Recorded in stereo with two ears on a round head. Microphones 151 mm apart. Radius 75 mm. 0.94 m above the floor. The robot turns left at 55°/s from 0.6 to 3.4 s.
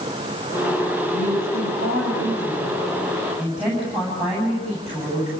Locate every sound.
1.1 s a woman speaking: 50° right, 8 m; by 5.3 s 175° right, 8 m